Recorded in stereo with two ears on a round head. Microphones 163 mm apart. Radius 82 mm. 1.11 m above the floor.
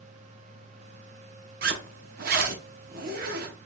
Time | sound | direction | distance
1.6 | a zipper | 55° right (ahead or behind) | 0.9 m